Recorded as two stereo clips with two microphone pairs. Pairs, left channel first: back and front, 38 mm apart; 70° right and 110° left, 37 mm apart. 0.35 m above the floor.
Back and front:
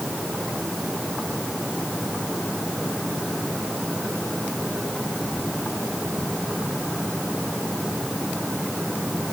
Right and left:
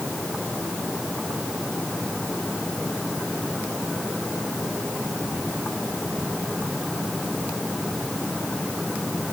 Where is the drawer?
No drawer in this recording.